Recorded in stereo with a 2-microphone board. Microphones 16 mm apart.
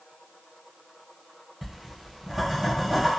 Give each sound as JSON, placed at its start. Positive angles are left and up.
{"t": 1.6, "sound": "writing", "side_deg": -15, "distance_m": 1.6}